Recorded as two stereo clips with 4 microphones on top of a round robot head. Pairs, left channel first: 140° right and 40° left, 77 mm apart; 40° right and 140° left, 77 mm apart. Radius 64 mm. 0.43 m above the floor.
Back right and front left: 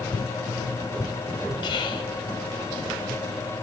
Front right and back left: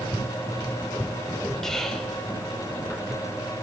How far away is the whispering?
About 3 m.